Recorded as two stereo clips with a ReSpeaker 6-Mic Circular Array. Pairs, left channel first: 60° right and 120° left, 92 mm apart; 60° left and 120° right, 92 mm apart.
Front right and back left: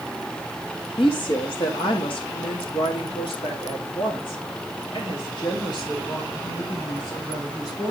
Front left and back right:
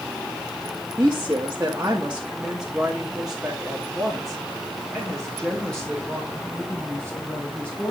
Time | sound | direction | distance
1.0 | a woman speaking | 65° right | 1.9 m